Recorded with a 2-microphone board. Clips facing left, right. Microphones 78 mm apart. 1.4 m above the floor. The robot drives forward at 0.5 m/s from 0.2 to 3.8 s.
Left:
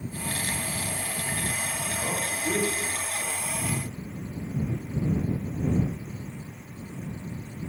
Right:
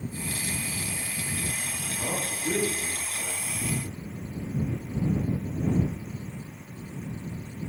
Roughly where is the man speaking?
Centre.